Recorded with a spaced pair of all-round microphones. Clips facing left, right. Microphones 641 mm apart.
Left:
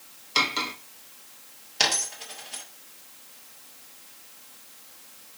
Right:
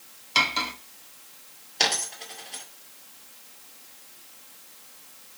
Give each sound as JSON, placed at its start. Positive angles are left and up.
{"t": 0.3, "sound": "cutlery clinking", "side_deg": -20, "distance_m": 1.0}
{"t": 1.8, "sound": "a dropped coin", "side_deg": 35, "distance_m": 1.5}